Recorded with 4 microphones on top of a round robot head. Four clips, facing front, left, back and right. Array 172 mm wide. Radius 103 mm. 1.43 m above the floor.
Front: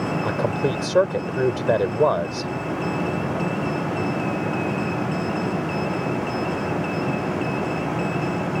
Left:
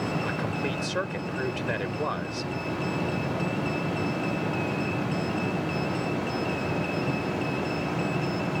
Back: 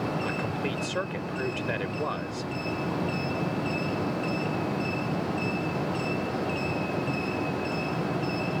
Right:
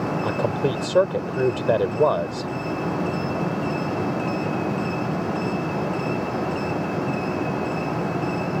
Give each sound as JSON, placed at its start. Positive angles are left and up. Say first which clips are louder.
{"t": 0.2, "sound": "a man speaking", "louder": "right 7 dB, front 8 dB", "azimuth_deg": -45}